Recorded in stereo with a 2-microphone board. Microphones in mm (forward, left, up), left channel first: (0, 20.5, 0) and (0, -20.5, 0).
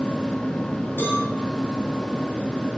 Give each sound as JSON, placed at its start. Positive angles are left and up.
{"t": 1.0, "sound": "a cowbell", "side_deg": 60, "distance_m": 9.5}